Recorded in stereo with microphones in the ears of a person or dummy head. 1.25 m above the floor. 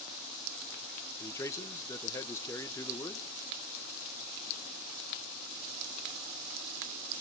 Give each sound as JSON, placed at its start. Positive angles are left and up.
{"t": 1.2, "sound": "a man speaking", "side_deg": 20, "distance_m": 1.1}